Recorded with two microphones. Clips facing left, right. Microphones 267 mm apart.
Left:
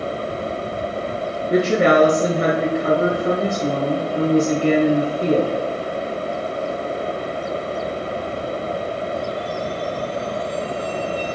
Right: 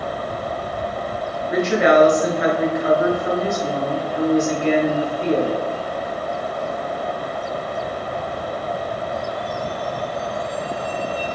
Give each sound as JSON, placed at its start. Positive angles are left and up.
{"t": 1.5, "sound": "a woman speaking", "side_deg": 40, "distance_m": 1.3}